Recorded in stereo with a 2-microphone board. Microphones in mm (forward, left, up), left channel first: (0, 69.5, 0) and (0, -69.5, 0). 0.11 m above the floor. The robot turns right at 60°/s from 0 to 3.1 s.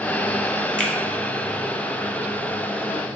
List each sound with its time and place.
0.8 s a finger snap: 10° left (ahead or behind), 1.0 m; by 0.9 s 5° left (ahead or behind), 1.0 m